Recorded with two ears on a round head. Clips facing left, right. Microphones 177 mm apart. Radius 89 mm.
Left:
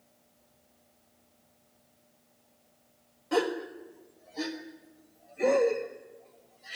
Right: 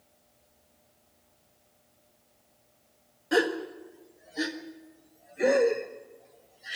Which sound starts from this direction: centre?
A gasp, at 3.3 s.